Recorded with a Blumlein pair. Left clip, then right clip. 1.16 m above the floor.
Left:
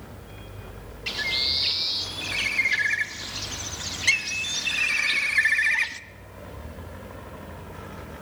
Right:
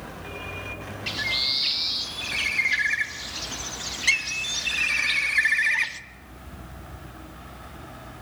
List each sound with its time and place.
1.1 s a bird: straight ahead, 0.8 m